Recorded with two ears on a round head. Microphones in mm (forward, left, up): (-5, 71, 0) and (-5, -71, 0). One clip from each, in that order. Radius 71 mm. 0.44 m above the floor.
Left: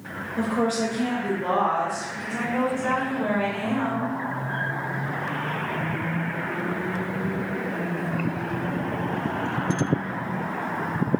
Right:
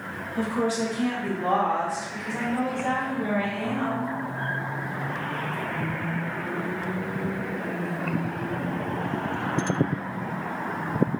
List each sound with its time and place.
0.4 s a woman speaking: 25° right (ahead or behind), 1.1 m; by 4.2 s 10° right (ahead or behind), 2 m